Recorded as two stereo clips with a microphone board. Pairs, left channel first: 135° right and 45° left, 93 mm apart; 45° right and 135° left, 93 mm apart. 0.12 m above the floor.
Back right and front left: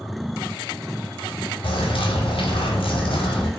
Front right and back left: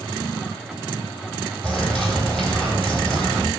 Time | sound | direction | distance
1.6 | a bird | 130° right | 0.8 m